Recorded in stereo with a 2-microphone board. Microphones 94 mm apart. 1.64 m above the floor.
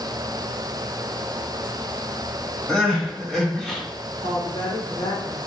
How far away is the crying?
About 1.1 m.